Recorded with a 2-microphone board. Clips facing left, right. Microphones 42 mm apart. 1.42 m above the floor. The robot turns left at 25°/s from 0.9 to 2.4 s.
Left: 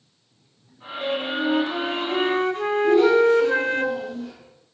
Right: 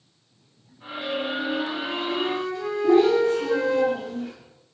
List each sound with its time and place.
1.0 s a flute: 105° left, 1.8 m; by 3.8 s 70° left, 1.8 m
2.8 s a child speaking: 40° right (ahead or behind), 8 m